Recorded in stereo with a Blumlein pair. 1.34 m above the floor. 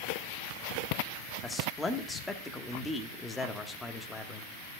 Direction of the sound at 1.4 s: 10° left.